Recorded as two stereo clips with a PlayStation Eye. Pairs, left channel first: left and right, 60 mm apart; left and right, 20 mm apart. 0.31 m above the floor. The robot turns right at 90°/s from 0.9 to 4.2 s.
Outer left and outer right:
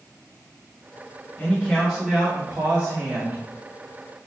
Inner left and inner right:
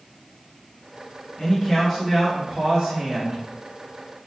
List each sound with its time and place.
1.4 s a man speaking: 110° left, 1.9 m; by 3.4 s 65° right, 1.9 m